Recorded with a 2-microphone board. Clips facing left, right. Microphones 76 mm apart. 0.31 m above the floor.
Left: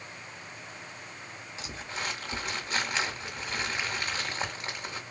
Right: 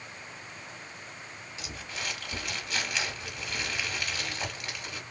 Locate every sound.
1.6 s crumpling: 30° left (ahead or behind), 1.3 m